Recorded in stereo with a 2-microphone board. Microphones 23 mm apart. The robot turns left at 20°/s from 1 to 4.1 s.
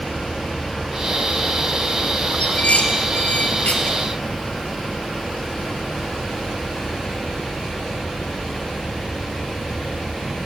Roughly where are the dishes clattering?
Left.